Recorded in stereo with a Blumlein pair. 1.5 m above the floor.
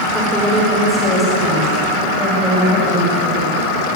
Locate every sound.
0.1 s a woman speaking: 5° right, 5.5 m; by 3.9 s 10° left, 8 m